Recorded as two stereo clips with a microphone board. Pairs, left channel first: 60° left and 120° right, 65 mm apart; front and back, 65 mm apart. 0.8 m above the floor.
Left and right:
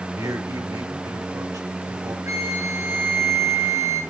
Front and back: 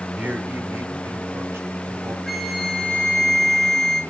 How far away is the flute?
About 6 m.